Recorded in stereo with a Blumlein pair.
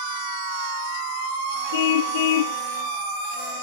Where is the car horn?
55° left.